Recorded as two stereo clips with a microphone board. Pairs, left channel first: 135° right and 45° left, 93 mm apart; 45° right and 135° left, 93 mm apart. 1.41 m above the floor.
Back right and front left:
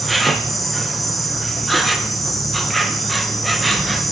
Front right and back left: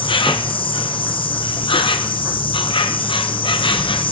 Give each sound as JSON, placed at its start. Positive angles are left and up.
{"t": 0.0, "sound": "an insect", "azimuth_deg": -45, "distance_m": 0.9}